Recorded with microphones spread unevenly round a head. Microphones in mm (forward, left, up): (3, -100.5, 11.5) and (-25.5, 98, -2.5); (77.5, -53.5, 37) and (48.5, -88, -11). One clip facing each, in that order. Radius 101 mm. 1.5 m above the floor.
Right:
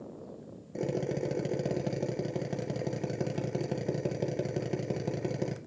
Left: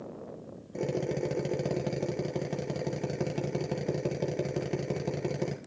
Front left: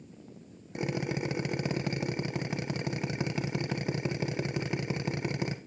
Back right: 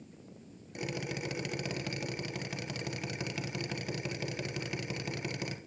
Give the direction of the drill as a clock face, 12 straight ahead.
12 o'clock.